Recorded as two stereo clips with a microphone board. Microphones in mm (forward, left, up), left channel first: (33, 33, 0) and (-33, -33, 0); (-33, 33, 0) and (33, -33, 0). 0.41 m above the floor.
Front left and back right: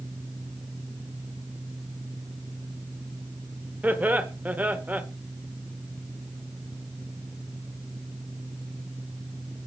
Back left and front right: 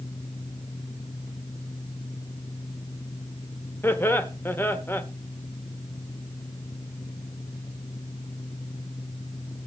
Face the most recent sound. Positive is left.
turn(degrees=170)